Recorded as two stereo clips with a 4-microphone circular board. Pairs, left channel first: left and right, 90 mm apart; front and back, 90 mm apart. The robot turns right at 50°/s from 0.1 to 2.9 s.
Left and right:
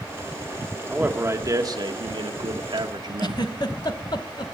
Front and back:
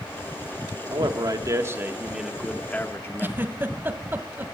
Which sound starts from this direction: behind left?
A giggle, at 3.2 s.